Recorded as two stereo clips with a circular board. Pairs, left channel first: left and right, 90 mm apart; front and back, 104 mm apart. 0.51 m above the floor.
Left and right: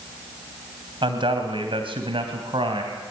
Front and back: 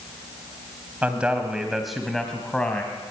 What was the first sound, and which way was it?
A man speaking, 105° right.